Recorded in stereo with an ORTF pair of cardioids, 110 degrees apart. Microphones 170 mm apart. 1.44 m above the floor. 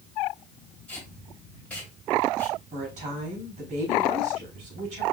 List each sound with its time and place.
0.9 s tape being pulled: 5° left, 2.5 m
2.7 s a woman speaking: 50° right, 3.5 m